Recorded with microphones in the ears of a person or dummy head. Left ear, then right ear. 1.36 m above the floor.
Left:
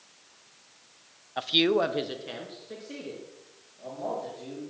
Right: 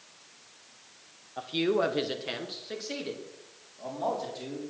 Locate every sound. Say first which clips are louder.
1.4 s a man speaking: left 4 dB; 60° left (ahead or behind), 0.8 m; by 4.7 s 35° right (ahead or behind), 4.5 m